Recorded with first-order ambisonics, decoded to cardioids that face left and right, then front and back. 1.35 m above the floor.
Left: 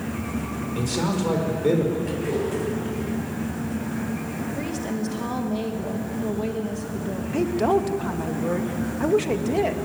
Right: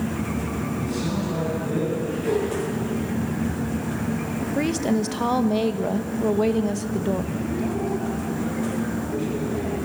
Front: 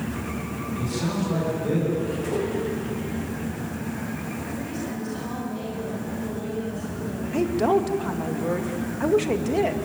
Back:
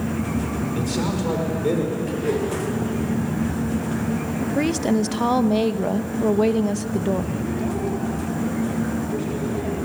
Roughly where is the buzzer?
I don't hear a buzzer.